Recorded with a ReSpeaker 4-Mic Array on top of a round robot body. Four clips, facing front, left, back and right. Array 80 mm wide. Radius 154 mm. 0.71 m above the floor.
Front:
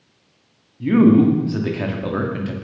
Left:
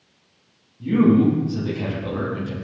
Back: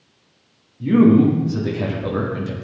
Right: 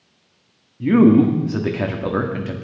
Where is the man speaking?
70° right, 2.5 m.